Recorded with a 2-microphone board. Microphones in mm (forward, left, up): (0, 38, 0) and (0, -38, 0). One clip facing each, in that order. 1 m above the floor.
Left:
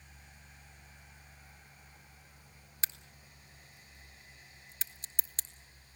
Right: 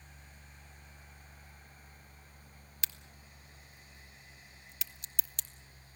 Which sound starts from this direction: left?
A crack, at 2.8 s.